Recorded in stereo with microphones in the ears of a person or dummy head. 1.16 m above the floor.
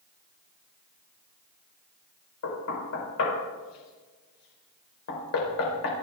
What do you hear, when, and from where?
2.4 s knocking: 90° left, 4 m